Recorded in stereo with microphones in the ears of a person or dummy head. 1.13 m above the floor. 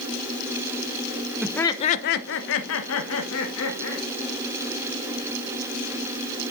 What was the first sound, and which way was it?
Laughter, 5° right (ahead or behind).